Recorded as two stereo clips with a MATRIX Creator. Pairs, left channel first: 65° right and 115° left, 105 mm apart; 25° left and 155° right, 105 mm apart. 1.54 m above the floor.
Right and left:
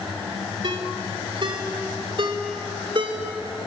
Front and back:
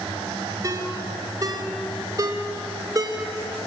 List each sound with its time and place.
0.6 s a ringtone: 150° left, 3 m